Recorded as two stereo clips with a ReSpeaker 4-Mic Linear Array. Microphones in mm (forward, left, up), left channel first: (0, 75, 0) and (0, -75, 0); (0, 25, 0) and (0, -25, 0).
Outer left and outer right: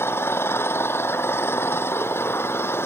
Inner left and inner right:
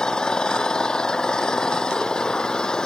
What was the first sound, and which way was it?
An engine running, 15° left (ahead or behind).